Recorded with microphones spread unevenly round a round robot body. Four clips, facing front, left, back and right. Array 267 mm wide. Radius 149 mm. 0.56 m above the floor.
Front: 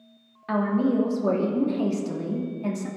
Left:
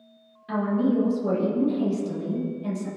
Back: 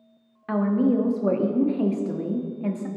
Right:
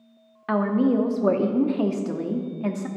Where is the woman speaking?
110° right, 1.3 m.